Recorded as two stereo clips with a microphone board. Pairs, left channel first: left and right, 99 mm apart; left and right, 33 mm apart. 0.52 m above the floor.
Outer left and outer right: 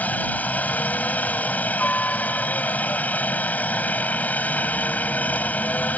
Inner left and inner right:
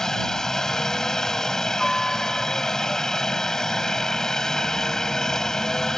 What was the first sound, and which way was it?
A helicopter, 15° left (ahead or behind).